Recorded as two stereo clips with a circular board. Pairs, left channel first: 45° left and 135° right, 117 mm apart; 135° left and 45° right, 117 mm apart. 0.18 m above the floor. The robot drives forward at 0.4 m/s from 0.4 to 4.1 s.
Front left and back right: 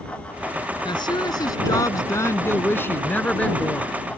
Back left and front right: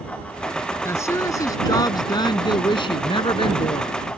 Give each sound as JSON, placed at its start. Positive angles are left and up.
{"t": 0.8, "sound": "a woman speaking", "azimuth_deg": 75}